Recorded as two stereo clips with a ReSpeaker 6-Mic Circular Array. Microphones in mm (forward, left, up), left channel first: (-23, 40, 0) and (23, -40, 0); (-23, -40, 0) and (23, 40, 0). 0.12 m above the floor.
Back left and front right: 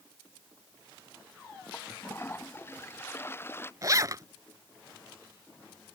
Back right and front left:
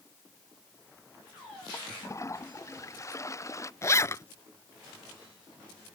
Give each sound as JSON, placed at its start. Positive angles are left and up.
{"t": 1.7, "sound": "a toilet flushing", "azimuth_deg": -175}
{"t": 3.8, "sound": "a zipper", "azimuth_deg": -85}